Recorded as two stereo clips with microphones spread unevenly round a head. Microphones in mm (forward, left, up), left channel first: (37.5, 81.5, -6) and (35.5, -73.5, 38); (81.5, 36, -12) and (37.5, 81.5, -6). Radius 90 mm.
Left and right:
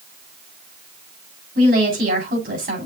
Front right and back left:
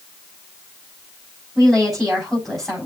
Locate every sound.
1.6 s a woman speaking: 135° right, 6 m